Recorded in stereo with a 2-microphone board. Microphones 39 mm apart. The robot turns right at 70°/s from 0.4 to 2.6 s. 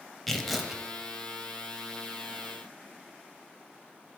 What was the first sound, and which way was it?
Tearing paper, 175° left.